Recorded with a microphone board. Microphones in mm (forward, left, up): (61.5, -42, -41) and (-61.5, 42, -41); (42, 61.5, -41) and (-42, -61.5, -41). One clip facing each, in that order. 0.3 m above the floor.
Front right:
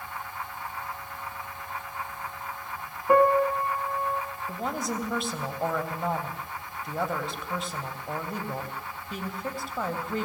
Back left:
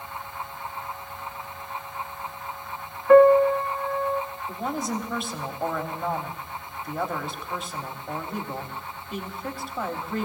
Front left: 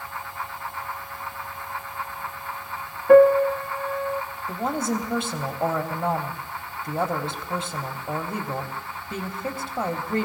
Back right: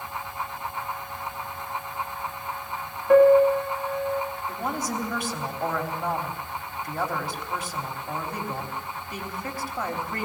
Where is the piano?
35° left, 1.3 m.